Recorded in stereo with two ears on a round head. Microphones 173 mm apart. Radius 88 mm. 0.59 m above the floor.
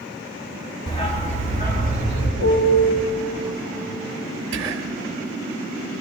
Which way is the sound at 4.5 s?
55° right (ahead or behind).